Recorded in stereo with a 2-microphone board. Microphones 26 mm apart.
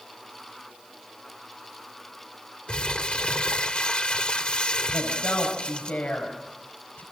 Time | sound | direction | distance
2.7 | crumpling | 45° left (ahead or behind) | 1.3 m
4.9 | a woman speaking | 65° left (ahead or behind) | 5 m